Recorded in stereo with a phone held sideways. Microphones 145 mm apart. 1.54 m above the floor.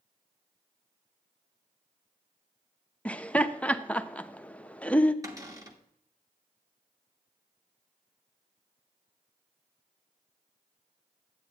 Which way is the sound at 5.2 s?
25° right (ahead or behind).